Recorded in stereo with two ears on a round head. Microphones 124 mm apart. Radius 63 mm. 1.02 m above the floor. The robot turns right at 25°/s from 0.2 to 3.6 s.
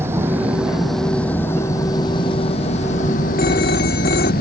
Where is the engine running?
15° right; by 4.4 s 70° left.